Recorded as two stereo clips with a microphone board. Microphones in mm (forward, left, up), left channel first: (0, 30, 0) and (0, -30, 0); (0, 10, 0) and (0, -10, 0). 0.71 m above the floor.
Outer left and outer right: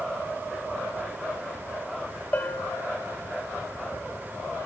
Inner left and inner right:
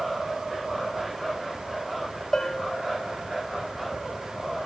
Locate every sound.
2.3 s a bell: 30° left (ahead or behind), 1.6 m